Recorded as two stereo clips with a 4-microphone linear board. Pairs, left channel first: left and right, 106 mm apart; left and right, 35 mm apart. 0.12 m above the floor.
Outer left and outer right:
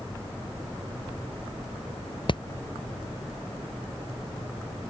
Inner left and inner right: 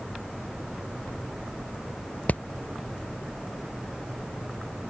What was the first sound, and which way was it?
Hammering, 50° left (ahead or behind).